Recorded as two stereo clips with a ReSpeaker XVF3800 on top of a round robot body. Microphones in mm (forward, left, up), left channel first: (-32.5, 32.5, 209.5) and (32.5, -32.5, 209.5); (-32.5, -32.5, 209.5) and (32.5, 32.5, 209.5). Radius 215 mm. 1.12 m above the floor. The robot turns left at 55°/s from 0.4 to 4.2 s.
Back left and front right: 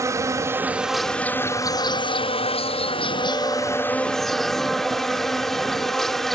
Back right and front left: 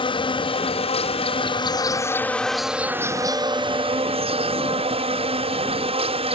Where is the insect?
105° right; by 6.4 s 45° left.